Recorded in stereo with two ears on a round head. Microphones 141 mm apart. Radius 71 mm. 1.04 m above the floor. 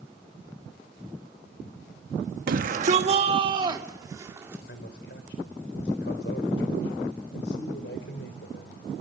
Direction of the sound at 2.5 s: 55° right (ahead or behind).